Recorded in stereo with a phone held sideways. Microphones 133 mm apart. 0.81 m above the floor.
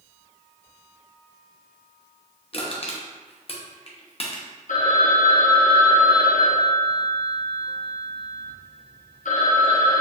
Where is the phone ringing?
70° left (ahead or behind), 0.6 m.